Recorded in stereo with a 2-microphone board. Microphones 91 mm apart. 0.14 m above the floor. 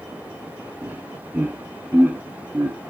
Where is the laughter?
20° right (ahead or behind), 4.5 m.